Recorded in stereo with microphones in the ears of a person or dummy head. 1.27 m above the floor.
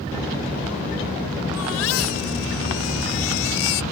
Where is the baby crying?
80° left.